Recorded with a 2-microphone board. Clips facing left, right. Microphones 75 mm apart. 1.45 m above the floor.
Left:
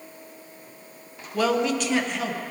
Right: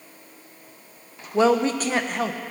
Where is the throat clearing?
No throat clearing in this recording.